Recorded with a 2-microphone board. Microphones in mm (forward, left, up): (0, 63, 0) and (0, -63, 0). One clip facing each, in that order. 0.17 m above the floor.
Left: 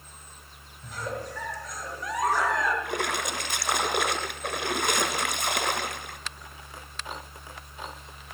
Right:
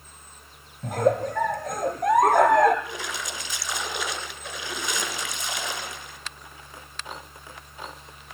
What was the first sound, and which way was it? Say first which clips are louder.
A giggle: right 13 dB; 55° right (ahead or behind).